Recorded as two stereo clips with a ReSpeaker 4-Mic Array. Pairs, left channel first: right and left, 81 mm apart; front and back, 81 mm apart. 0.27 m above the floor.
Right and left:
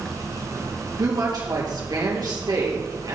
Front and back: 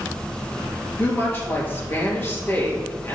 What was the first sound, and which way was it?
A woman speaking, 65° left.